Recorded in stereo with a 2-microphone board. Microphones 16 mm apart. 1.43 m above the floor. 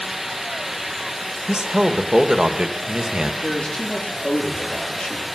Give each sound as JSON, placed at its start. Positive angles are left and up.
{"t": 1.5, "sound": "a man speaking", "side_deg": -55, "distance_m": 1.7}
{"t": 3.4, "sound": "a man speaking", "side_deg": 85, "distance_m": 4.0}